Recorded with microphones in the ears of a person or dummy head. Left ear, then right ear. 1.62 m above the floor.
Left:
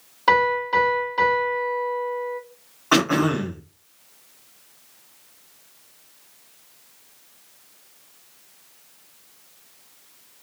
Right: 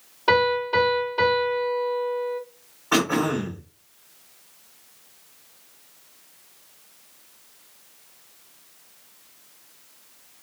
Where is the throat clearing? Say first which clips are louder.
Left 3 dB; 45° left (ahead or behind), 1.1 m.